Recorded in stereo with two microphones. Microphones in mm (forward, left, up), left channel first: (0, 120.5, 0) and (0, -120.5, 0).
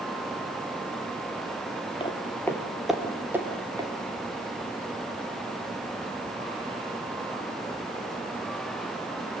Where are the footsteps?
20° left (ahead or behind), 3 m; by 3.9 s 15° right (ahead or behind), 5 m.